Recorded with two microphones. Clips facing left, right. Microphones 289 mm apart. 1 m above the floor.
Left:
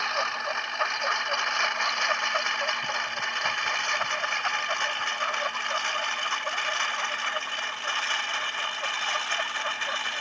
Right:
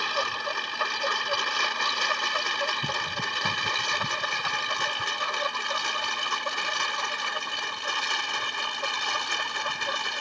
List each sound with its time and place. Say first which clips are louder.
0.0 s a lawn mower: right 2 dB; 40° right (ahead or behind); by 10.2 s 45° right (ahead or behind)